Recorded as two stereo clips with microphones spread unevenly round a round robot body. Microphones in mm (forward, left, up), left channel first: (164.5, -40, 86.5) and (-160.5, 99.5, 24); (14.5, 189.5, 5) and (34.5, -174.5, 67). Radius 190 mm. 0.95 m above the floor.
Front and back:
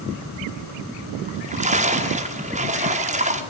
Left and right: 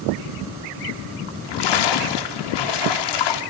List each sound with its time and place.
1.3 s a splash: 85° left, 2 m